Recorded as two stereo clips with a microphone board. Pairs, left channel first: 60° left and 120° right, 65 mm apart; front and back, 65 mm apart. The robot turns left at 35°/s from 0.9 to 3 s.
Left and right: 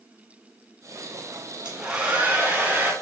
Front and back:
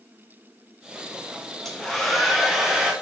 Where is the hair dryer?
75° right, 1.0 m; by 2.9 s 120° right, 1.0 m.